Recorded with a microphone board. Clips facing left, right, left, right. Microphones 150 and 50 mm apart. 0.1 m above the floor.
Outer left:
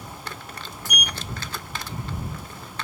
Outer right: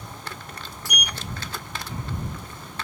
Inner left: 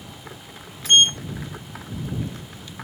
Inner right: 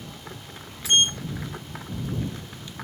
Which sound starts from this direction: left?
A sliding door, at 0.8 s.